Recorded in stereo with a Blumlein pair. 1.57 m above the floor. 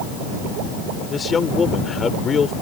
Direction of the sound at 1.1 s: 15° left.